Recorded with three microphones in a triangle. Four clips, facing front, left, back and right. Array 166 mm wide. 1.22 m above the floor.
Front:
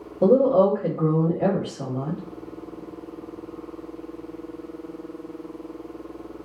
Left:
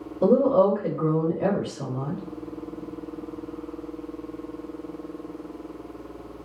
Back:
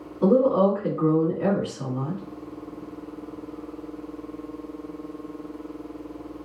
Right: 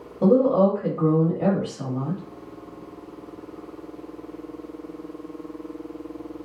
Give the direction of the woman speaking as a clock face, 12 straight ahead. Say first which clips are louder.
Right 1 dB, front 2 dB; 1 o'clock.